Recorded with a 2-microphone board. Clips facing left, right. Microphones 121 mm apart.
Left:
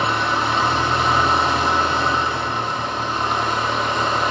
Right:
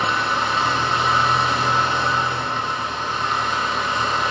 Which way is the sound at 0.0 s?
60° left (ahead or behind).